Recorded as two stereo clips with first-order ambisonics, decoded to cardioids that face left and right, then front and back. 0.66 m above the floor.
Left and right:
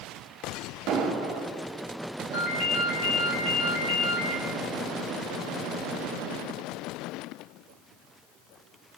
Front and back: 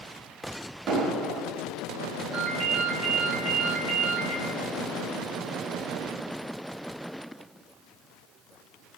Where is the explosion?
130° right, 1.0 m.